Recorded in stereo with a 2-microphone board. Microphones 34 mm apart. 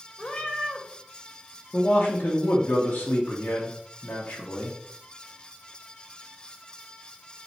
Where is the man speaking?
45° left (ahead or behind), 1.1 m.